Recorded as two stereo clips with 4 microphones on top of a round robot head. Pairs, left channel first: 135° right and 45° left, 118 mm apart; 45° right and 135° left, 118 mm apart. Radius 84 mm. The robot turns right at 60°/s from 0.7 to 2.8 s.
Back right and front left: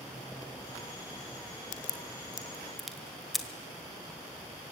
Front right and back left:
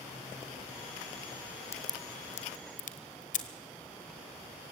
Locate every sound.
1.7 s a crack: 110° right, 1.4 m; by 3.5 s 45° right, 1.4 m